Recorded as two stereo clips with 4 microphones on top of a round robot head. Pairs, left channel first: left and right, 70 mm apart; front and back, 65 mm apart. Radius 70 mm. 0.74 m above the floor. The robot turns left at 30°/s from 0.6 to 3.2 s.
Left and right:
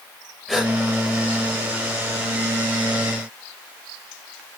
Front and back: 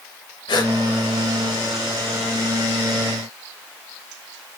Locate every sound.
0.5 s a gasp: straight ahead, 4 m; by 0.7 s 5° right, 4 m